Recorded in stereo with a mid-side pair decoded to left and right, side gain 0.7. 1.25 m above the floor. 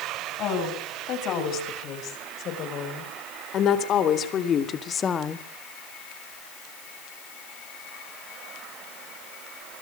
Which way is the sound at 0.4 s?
55° left.